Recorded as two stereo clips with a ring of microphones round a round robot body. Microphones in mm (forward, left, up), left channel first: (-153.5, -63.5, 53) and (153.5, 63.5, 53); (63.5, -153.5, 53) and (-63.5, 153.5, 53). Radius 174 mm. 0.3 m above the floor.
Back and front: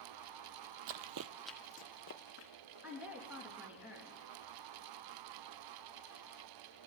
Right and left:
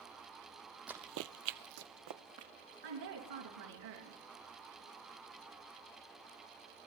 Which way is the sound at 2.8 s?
110° left.